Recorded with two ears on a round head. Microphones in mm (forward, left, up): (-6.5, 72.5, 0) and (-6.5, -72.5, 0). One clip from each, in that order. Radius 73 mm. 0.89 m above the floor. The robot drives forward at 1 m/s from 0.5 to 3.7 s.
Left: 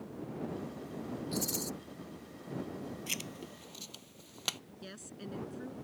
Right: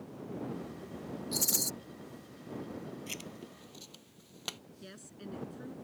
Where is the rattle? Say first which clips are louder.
Right 5 dB; 25° right (ahead or behind); by 1.7 s 40° right (ahead or behind).